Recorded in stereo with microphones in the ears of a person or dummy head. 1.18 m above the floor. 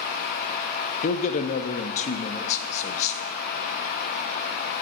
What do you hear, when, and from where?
1.0 s a man speaking: 45° left (ahead or behind), 0.6 m